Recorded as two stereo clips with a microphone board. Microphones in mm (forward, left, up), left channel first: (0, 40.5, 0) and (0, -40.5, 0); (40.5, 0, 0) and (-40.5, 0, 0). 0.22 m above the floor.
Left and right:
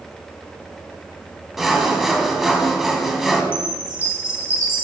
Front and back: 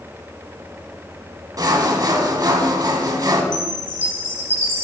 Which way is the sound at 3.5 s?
140° left.